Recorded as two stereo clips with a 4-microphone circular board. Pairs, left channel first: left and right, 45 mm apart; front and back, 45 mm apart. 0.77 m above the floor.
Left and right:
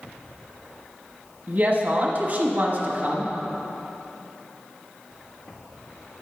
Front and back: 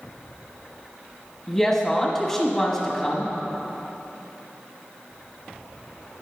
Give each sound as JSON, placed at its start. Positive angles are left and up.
{"t": 1.5, "sound": "a woman speaking", "azimuth_deg": -75, "distance_m": 1.2}